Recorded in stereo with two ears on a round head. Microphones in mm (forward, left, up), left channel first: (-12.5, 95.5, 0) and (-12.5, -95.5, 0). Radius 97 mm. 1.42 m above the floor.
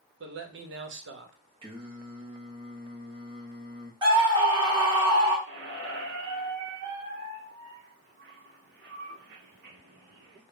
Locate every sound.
0.2 s a man speaking: 60° right (ahead or behind), 0.8 m
1.6 s singing: 25° right (ahead or behind), 0.7 m
4.0 s a scream: 25° right (ahead or behind), 1.6 m
5.5 s a squeak: 55° right (ahead or behind), 0.9 m